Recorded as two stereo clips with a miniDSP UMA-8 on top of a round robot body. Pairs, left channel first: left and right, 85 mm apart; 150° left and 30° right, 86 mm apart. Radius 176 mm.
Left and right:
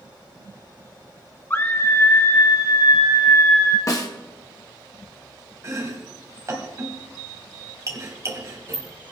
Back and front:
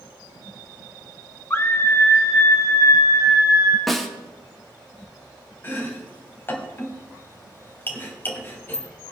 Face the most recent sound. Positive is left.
turn(degrees=-145)